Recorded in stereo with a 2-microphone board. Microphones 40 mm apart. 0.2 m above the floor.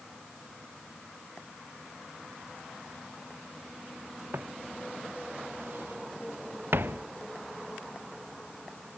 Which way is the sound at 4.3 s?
65° right (ahead or behind).